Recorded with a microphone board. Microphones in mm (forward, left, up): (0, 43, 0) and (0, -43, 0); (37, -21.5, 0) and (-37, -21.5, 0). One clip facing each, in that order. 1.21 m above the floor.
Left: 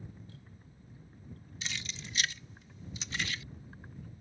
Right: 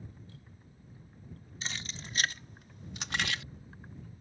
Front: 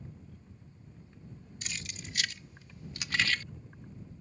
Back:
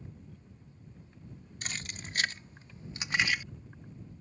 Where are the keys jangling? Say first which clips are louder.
Right 1 dB, back 3 dB; 140° right; by 3.4 s 100° right.